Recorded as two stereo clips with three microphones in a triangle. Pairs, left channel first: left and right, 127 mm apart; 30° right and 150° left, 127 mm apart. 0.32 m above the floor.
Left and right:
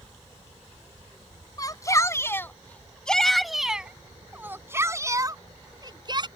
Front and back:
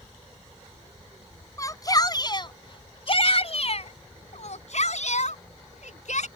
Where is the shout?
30° left; by 6.3 s 40° right.